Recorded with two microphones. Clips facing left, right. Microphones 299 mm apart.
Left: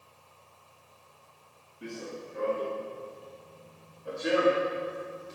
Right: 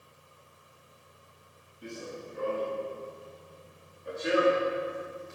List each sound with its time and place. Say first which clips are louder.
1.8 s running footsteps: left 2 dB; 75° left (ahead or behind), 4.5 m; by 5.3 s 45° left (ahead or behind), 7 m